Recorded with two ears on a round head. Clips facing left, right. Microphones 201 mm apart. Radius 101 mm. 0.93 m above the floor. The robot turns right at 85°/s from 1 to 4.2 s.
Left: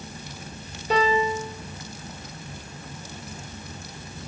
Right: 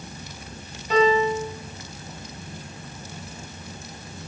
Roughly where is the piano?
Behind left.